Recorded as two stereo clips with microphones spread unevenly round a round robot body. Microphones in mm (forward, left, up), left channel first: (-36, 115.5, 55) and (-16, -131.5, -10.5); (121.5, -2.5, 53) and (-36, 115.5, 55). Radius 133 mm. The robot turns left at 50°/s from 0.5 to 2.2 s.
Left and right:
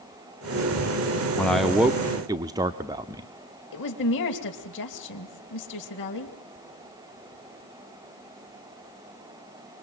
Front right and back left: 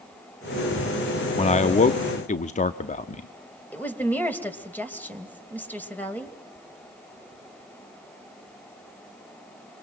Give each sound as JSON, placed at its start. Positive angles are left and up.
{"t": 1.4, "sound": "a man speaking", "azimuth_deg": -5, "distance_m": 0.8}
{"t": 3.7, "sound": "a woman speaking", "azimuth_deg": 45, "distance_m": 3.0}